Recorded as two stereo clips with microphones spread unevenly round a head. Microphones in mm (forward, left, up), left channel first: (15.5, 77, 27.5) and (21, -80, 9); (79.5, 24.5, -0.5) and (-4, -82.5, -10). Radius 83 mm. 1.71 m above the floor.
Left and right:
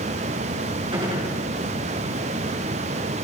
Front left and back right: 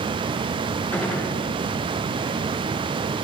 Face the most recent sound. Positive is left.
turn(degrees=-25)